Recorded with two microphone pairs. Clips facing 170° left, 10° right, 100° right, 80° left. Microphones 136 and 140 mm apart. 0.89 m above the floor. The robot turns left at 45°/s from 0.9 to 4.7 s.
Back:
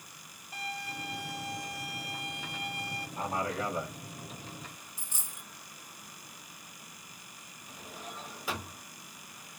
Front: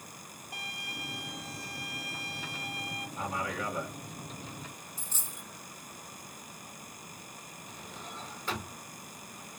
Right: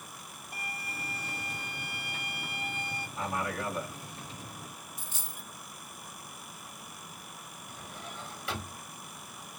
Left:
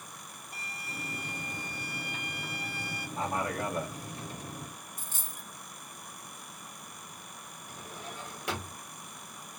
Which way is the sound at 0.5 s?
85° right.